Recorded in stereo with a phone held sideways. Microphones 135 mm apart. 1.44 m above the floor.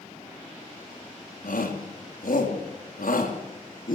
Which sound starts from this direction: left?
A shout, at 1.4 s.